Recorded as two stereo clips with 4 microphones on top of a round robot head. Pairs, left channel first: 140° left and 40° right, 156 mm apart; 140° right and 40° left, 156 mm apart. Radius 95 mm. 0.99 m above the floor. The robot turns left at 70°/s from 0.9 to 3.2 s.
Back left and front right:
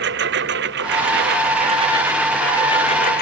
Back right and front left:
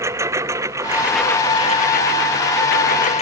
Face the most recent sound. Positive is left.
turn(degrees=170)